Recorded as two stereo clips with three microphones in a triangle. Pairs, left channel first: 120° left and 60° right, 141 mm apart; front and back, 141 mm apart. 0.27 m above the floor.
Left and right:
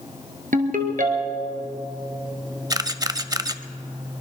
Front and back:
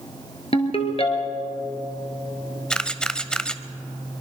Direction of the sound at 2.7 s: 75° right.